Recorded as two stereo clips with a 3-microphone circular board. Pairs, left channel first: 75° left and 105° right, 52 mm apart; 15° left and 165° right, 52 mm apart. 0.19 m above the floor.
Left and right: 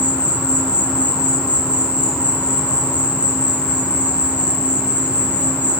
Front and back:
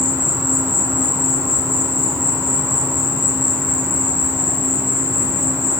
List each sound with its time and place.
0.0 s an insect: 165° right, 4 m